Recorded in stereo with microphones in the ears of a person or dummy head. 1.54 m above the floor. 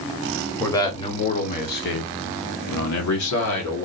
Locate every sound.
0.6 s a man speaking: 15° left (ahead or behind), 1.0 m; by 3.9 s 85° left, 1.7 m